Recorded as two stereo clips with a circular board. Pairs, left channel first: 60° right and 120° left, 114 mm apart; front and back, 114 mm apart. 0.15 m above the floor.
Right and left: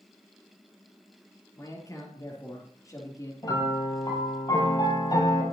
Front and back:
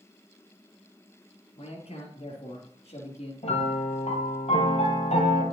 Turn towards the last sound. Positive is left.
turn(degrees=-5)